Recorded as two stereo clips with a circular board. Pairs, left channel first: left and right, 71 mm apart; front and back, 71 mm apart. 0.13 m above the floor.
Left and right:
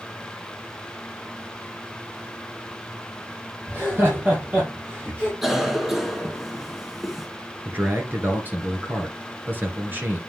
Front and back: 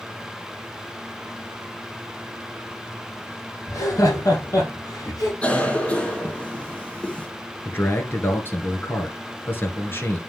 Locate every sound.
3.7 s laughter: 35° right, 3 m
5.4 s a cough: 15° right, 1.7 m
7.7 s a man speaking: 45° right, 2 m